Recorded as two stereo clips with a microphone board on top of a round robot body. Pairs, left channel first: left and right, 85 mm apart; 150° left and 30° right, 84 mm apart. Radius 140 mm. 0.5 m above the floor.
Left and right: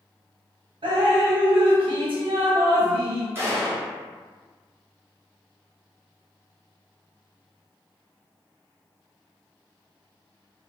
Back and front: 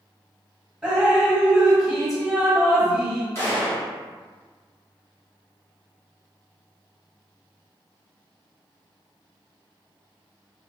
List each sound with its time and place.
0.8 s dripping: 115° right, 1.2 m
3.4 s a gunshot: 150° right, 1.5 m